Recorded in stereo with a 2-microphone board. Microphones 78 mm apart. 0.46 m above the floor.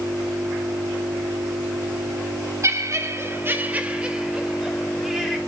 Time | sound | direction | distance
2.6 | laughter | 45° right (ahead or behind) | 1.5 m